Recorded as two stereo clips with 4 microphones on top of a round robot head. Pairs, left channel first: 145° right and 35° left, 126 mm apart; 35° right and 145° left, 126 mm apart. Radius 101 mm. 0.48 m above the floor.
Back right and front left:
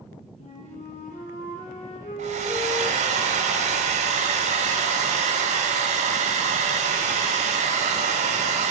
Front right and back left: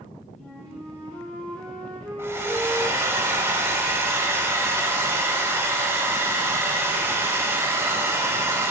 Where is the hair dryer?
70° left, 0.6 m.